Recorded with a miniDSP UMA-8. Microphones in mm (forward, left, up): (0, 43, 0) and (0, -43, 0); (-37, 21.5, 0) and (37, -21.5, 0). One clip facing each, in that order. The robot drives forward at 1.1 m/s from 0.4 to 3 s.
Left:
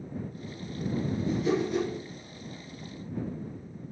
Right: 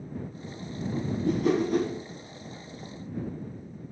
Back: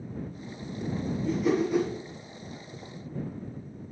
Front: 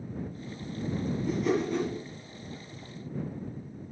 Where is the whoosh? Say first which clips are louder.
Right 4 dB, back 3 dB; 115° right, 1.8 m; by 1.9 s 135° right, 2 m.